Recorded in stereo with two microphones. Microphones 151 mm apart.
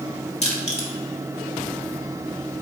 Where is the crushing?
45° left (ahead or behind), 1.6 m.